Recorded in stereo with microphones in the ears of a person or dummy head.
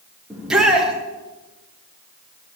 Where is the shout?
5° right (ahead or behind), 1.6 m.